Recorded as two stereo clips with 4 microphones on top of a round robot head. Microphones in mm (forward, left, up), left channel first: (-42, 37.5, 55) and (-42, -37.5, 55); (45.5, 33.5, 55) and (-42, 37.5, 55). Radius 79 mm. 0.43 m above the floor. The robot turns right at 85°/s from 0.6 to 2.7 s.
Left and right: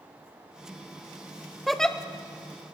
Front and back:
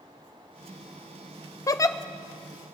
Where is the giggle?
Straight ahead, 0.6 m; by 2.0 s 25° left, 0.6 m.